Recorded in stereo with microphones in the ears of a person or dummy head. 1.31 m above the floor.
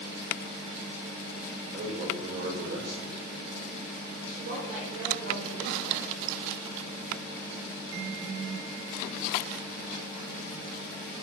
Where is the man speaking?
50° right (ahead or behind), 5 m.